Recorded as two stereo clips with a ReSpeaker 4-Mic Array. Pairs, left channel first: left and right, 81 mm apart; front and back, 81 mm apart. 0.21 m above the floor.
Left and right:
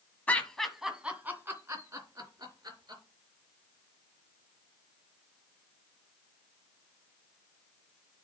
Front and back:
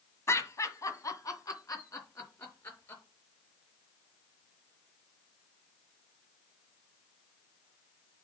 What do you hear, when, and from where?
0.3 s laughter: 30° left, 1.6 m; by 3.0 s 55° right, 3.5 m